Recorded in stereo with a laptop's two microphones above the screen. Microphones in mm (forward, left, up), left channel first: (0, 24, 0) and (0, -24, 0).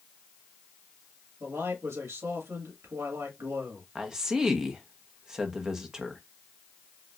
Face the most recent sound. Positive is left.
turn(degrees=-10)  # may be behind; listen again after turning